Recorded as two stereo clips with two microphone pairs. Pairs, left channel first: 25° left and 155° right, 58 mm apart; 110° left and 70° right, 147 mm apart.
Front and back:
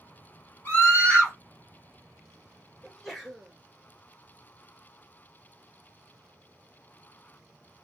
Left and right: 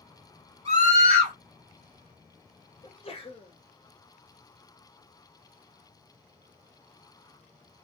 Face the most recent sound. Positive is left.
turn(degrees=115)